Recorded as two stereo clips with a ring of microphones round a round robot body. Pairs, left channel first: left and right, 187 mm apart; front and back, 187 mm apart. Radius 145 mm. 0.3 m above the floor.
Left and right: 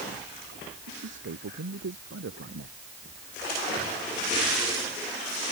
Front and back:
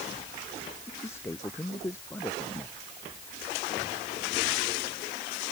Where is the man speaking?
75° right.